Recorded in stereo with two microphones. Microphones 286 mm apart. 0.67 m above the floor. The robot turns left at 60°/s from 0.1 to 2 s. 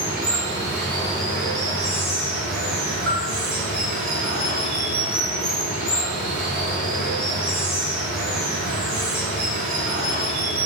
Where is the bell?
45° right (ahead or behind), 3.5 m.